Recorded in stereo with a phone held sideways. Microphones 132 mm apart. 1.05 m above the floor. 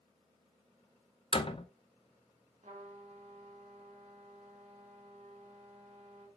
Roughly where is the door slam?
Left.